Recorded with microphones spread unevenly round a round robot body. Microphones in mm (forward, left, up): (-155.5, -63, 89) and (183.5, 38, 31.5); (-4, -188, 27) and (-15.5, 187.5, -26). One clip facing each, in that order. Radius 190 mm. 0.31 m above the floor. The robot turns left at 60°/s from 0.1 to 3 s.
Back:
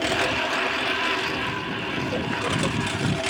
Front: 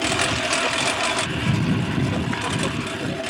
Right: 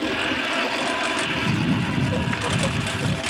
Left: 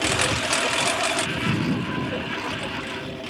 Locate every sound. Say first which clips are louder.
0.0 s a lawn mower: front 1 dB, right 1 dB; 80° left; by 3.3 s 95° right